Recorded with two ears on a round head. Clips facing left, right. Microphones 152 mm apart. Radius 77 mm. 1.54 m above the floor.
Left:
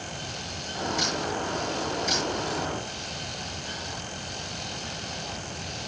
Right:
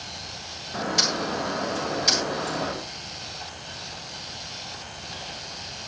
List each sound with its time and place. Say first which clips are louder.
0.7 s a bird: right 2 dB; 80° right, 7 m